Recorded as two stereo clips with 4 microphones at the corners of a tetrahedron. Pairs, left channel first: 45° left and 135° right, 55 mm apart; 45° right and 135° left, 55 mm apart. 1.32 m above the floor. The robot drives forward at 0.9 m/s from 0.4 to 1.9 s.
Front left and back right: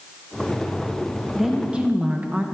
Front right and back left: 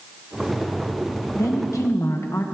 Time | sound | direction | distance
1.4 | a woman speaking | 50° right | 1.4 m